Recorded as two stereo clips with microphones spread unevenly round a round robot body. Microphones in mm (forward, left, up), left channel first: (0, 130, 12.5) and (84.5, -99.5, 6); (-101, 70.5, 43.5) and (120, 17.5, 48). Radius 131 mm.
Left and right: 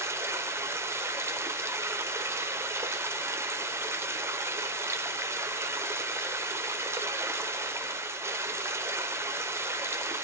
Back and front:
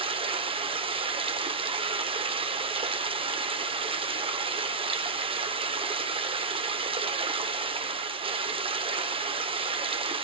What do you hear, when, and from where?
0.0 s running water: 15° right, 0.9 m